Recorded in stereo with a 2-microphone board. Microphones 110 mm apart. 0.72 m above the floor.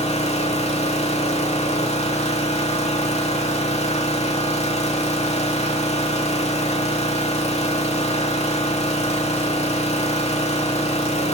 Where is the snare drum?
I don't hear a snare drum.